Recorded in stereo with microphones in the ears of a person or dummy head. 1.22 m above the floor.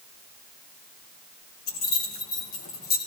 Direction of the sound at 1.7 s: 45° left (ahead or behind).